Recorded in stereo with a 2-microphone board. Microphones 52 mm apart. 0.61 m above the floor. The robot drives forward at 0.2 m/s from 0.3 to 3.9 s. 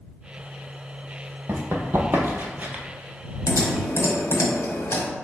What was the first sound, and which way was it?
Running footsteps, 55° right (ahead or behind).